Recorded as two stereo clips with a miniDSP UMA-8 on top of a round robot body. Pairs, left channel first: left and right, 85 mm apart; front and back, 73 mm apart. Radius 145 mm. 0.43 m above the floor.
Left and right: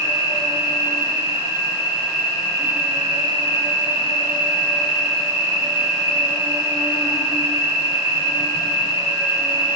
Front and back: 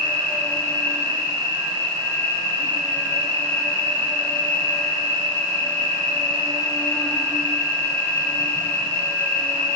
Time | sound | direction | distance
0.0 | an insect | 65° right | 1.0 m